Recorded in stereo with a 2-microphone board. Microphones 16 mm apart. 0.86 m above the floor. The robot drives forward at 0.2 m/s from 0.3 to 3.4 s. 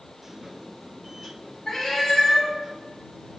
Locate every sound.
1.7 s a cat meowing: 30° left (ahead or behind), 2 m; by 2.5 s 25° left (ahead or behind), 2.5 m